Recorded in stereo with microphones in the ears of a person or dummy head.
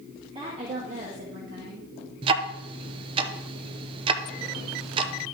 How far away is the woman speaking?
About 2 m.